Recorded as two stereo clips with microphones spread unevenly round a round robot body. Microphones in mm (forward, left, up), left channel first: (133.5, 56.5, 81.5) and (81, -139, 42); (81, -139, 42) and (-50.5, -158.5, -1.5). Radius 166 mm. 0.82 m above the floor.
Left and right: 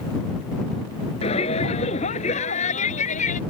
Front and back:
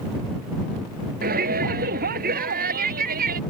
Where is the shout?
145° left; by 3.4 s 140° left.